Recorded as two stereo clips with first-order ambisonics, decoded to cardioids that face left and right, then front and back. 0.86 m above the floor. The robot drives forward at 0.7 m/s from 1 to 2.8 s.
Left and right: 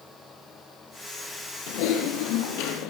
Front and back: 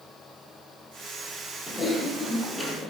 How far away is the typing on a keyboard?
About 4.5 m.